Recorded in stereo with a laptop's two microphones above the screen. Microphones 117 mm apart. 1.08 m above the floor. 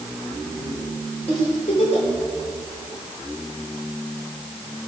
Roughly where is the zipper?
I don't hear a zipper.